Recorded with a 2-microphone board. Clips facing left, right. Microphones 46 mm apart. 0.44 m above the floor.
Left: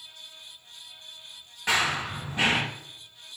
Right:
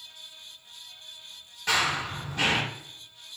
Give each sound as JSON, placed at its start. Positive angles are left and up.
{"t": 1.7, "sound": "running footsteps", "side_deg": 20, "distance_m": 0.6}